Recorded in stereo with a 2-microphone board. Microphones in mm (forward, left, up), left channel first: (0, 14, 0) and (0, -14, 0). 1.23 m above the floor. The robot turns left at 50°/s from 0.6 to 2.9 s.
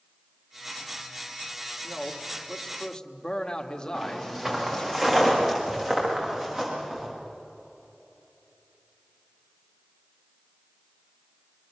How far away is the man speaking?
About 1.8 m.